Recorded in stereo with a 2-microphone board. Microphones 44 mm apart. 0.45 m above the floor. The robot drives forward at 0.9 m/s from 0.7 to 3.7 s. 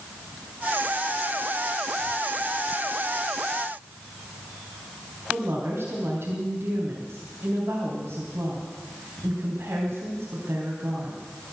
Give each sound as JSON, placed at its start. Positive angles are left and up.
{"t": 5.3, "sound": "a woman speaking", "side_deg": -60, "distance_m": 3.5}